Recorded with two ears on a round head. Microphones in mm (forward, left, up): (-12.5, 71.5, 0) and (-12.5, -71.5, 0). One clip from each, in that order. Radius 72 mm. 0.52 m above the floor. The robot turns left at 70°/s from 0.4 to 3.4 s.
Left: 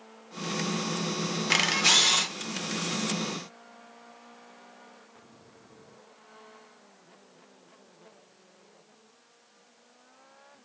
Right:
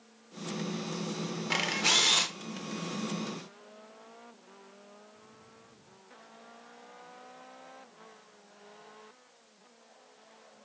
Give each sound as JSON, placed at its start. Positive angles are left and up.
{"t": 1.5, "sound": "a camera shutter", "azimuth_deg": 45, "distance_m": 0.8}